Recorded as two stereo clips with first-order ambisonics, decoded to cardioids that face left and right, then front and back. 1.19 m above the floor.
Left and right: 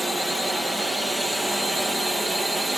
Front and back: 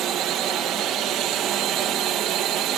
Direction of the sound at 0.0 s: 175° left.